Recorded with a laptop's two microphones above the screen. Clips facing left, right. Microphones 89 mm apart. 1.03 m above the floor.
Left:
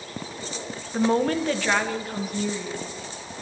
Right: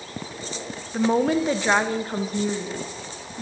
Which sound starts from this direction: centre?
A woman speaking, at 0.9 s.